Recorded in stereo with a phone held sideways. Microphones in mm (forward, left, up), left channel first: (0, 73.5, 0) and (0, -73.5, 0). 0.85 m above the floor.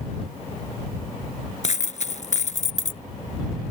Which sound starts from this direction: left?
A dropped coin, at 1.6 s.